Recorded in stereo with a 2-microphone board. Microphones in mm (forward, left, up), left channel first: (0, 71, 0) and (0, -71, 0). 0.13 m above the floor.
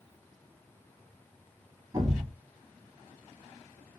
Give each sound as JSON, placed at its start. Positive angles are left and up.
{"t": 1.9, "sound": "a thud", "side_deg": -30, "distance_m": 1.1}